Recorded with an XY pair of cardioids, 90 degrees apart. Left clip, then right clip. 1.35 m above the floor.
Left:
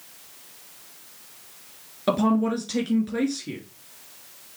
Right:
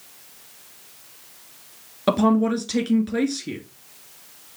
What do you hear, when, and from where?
2.1 s a woman speaking: 35° right, 3 m